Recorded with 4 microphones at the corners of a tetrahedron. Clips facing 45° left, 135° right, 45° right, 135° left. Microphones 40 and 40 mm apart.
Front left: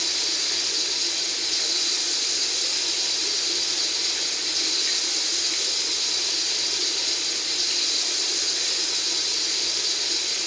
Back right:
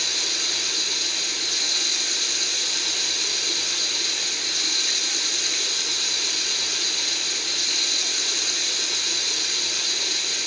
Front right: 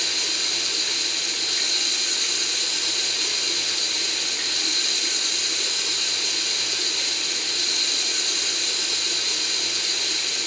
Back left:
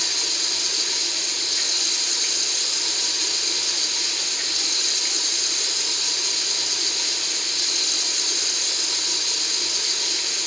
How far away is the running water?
About 0.9 m.